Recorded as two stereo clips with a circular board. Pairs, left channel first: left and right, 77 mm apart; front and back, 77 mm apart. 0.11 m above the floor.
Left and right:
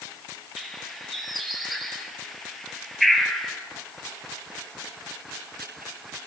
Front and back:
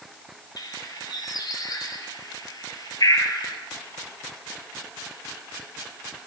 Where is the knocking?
No knocking in this recording.